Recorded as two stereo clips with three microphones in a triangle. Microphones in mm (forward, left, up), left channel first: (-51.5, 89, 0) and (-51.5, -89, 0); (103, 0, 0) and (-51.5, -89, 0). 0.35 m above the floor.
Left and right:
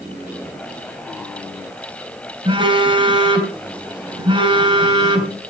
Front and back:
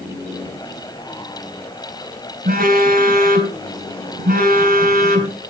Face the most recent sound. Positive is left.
turn(degrees=-145)